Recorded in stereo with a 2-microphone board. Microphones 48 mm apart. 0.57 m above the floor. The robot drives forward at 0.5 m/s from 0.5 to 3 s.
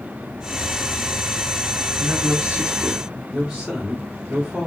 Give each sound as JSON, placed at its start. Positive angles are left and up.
{"t": 2.0, "sound": "a man speaking", "side_deg": -25, "distance_m": 0.9}